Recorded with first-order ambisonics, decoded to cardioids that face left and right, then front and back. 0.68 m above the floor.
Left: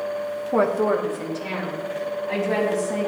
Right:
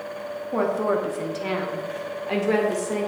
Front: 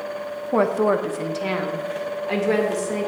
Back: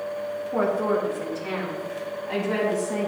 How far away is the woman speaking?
About 0.7 m.